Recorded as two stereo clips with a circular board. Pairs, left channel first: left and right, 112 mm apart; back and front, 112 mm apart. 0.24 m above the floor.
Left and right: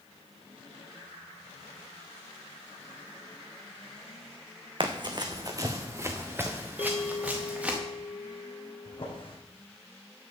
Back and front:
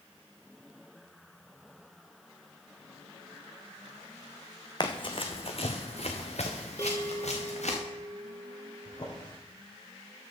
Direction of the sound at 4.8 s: 130° right.